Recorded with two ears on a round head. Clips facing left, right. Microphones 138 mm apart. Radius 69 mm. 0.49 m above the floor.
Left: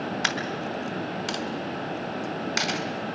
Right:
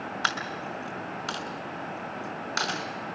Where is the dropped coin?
15° left (ahead or behind), 2 m.